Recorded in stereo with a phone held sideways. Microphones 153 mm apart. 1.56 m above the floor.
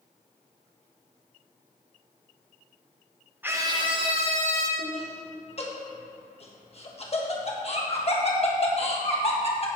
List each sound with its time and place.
3.4 s a scream: 15° right (ahead or behind), 0.8 m; by 4.7 s 50° right (ahead or behind), 1.9 m
4.8 s laughter: 45° left (ahead or behind), 1.6 m